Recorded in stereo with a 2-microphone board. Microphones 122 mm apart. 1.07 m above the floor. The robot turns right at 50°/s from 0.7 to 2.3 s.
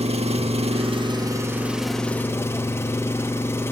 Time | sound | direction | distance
0.0 | an engine running | 60° right | 1.6 m